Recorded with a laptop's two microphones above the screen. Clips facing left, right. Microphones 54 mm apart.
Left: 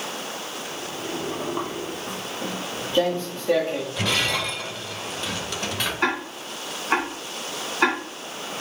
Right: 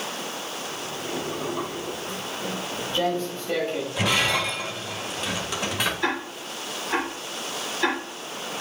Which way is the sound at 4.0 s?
10° right (ahead or behind).